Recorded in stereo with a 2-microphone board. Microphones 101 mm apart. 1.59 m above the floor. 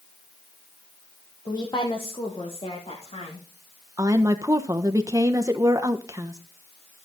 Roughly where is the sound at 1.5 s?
Left.